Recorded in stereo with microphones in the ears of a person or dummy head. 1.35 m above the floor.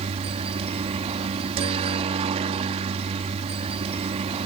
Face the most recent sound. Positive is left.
turn(degrees=-30)  # may be behind; listen again after turning